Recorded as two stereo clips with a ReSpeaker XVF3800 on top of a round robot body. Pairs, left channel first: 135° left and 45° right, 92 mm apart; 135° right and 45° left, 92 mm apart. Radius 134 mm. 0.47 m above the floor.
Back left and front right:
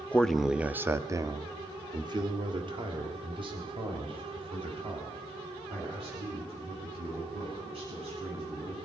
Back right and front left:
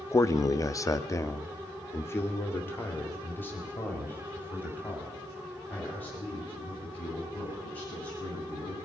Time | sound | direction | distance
0.1 | a man speaking | 160° right | 0.7 m